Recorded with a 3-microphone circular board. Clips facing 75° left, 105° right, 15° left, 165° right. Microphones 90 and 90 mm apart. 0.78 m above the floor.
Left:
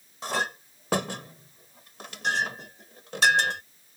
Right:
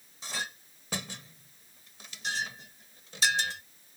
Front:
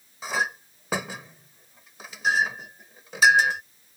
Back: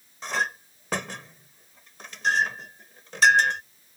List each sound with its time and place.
0.2 s a clink: 100° left